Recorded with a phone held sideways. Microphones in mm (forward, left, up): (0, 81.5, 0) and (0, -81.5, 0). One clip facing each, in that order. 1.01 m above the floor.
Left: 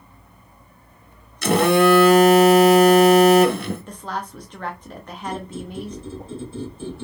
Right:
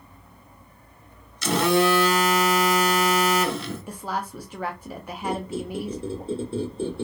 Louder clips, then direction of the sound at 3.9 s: Even; 10° right (ahead or behind).